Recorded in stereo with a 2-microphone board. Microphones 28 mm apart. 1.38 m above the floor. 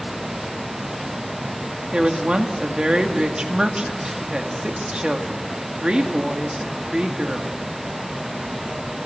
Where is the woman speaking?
30° right (ahead or behind), 2.5 m.